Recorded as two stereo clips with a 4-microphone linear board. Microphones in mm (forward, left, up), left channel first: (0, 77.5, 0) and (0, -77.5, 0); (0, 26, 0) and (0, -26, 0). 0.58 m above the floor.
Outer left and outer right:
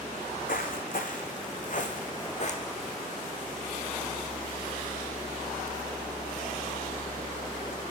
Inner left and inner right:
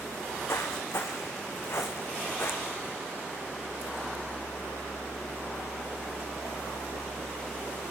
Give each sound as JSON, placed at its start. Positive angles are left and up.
{"t": 0.1, "sound": "footsteps", "side_deg": 75, "distance_m": 3.0}